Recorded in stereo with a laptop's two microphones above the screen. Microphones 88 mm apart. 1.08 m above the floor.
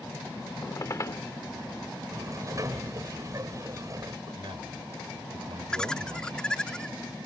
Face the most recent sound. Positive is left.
turn(degrees=10)  # may be behind; listen again after turning